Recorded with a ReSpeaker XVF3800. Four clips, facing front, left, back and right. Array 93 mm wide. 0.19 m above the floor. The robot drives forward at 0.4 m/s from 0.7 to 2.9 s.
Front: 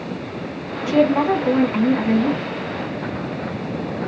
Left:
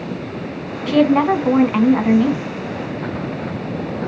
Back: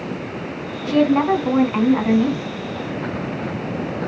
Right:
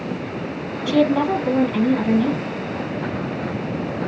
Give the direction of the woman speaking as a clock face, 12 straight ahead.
9 o'clock.